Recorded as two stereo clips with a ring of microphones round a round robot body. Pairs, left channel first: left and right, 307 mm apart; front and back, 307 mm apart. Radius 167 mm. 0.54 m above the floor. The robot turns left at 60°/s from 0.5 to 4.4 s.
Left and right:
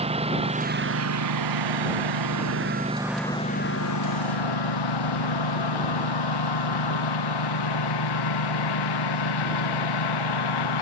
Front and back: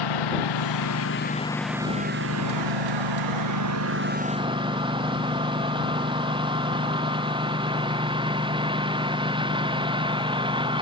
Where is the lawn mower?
20° right; by 10.8 s 105° left.